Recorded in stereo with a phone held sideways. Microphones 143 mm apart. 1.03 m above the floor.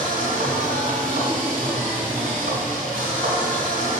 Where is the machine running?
65° right (ahead or behind), 2.5 m.